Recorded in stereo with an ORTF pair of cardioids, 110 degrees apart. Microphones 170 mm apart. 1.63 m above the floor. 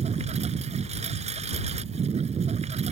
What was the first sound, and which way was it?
A lawn mower, 40° right.